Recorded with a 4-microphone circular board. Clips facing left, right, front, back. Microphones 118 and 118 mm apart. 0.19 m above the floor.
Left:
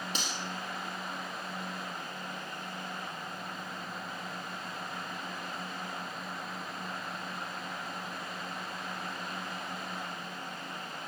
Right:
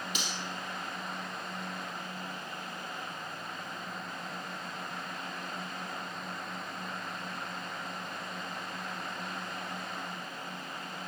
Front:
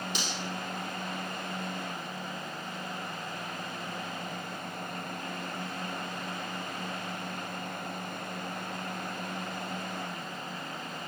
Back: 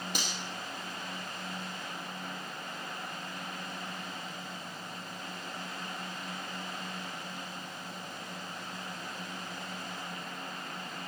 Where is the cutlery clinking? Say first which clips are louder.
Left 1 dB, front 2 dB; 145° left, 4 m.